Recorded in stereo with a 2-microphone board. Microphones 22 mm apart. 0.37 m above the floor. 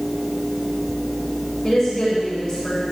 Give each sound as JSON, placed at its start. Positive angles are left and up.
{"t": 1.6, "sound": "a woman speaking", "side_deg": 15, "distance_m": 7.0}